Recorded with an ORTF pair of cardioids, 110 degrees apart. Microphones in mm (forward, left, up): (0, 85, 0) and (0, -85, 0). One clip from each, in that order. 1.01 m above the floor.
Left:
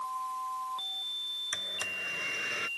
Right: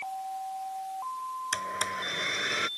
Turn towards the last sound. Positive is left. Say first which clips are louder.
# right 3 dB
turn(degrees=-40)